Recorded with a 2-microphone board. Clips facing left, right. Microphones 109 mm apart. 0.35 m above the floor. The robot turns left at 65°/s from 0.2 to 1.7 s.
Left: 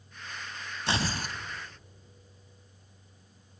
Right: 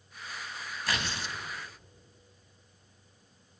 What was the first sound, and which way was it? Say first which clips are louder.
Tearing paper: left 4 dB; 155° left.